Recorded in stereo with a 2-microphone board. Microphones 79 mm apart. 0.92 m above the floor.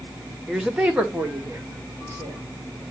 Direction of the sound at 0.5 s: 5° right (ahead or behind).